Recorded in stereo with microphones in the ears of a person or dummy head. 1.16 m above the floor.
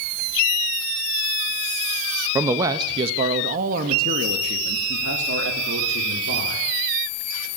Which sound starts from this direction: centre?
A man speaking, at 2.4 s.